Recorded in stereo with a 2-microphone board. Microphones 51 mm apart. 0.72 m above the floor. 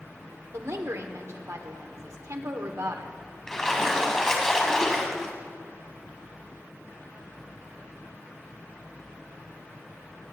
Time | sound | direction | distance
0.5 | a woman speaking | 75° right (ahead or behind) | 1.6 m
3.5 | a splash | 10° left (ahead or behind) | 1.8 m